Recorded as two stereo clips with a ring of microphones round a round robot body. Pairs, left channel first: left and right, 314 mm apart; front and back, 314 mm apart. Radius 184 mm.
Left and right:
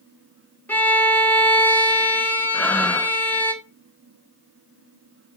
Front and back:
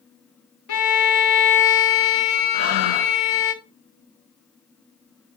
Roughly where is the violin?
Ahead.